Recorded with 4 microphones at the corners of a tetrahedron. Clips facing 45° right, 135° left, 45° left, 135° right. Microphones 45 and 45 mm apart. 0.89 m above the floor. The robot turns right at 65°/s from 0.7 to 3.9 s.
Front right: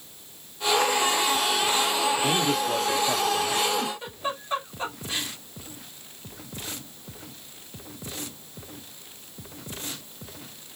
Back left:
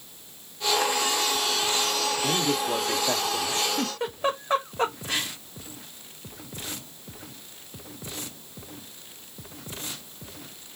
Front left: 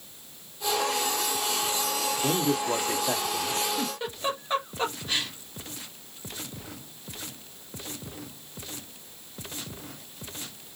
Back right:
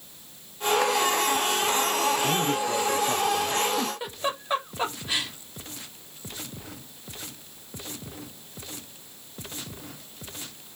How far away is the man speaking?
About 1.2 m.